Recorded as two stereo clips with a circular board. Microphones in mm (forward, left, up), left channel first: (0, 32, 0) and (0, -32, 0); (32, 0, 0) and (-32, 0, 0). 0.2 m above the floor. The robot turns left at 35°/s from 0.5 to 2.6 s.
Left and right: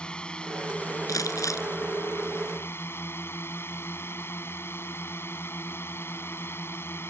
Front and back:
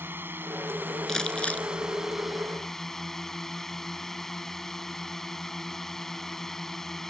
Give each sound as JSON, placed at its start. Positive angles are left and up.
{"t": 0.0, "sound": "a drone", "azimuth_deg": 155}
{"t": 1.1, "sound": "crumpling", "azimuth_deg": 80}